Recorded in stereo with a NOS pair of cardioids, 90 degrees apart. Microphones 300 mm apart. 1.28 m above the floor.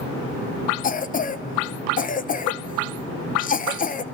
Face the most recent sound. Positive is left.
turn(degrees=30)